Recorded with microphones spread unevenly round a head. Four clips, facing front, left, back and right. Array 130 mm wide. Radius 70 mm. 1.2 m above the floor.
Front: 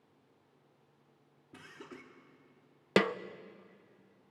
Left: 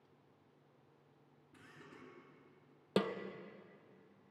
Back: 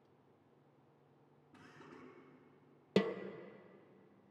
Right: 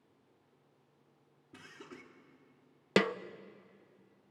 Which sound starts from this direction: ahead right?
Laughter, at 1.5 s.